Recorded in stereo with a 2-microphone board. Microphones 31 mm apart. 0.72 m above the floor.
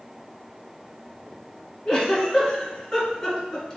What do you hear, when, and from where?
1.9 s a giggle: 30° left (ahead or behind), 1.9 m